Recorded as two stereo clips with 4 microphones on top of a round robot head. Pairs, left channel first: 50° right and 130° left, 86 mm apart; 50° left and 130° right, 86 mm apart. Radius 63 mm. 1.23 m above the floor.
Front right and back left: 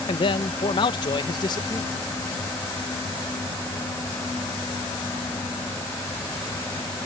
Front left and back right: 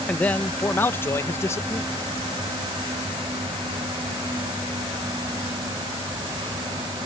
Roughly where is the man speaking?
Ahead right.